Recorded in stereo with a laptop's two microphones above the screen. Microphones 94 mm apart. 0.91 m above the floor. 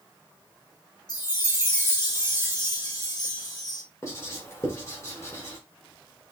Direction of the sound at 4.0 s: 30° left (ahead or behind).